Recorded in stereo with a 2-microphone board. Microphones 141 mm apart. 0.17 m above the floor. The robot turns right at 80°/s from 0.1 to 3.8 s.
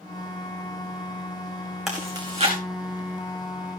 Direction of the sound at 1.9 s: Centre (ahead or behind).